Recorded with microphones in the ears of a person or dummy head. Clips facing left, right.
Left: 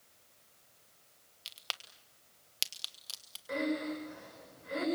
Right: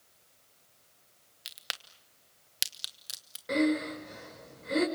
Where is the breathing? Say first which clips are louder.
Right 6 dB; 55° right (ahead or behind), 5 m.